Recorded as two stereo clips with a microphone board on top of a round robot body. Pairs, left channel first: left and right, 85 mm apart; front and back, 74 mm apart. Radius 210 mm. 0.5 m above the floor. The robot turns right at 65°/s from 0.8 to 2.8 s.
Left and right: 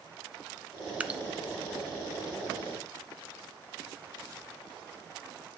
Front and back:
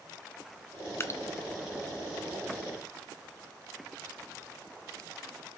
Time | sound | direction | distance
1.0 | dripping | 25° right | 0.8 m